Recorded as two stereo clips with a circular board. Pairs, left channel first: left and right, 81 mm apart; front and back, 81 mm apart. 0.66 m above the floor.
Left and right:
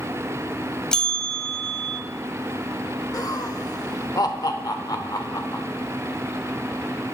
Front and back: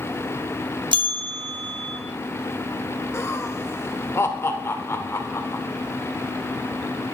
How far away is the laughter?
About 1.5 m.